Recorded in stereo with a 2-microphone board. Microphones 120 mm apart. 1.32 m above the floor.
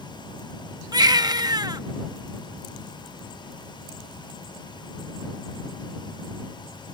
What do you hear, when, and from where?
0.9 s a baby crying: 35° right (ahead or behind)